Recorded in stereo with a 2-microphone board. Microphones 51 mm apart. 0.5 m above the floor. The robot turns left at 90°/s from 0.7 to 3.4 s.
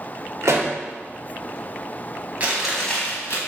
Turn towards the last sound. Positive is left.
turn(degrees=120)